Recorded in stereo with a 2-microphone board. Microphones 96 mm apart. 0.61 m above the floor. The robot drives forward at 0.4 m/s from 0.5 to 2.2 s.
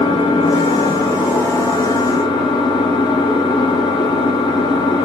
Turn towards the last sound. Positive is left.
turn(degrees=50)  # may be behind; listen again after turning